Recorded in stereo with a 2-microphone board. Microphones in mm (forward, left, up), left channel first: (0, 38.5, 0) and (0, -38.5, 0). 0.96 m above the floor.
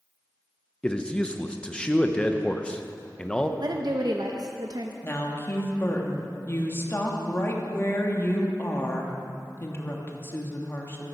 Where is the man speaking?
10° left (ahead or behind), 0.7 m.